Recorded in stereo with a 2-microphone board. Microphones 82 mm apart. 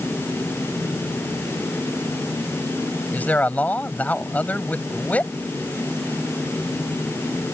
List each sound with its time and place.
3.1 s a man speaking: 20° left (ahead or behind)